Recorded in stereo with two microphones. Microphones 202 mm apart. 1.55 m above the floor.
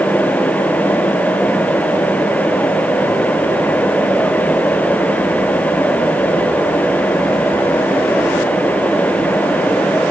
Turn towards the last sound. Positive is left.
No sound to turn to.